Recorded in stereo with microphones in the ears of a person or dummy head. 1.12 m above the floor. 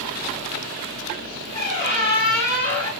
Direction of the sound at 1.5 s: 25° left (ahead or behind).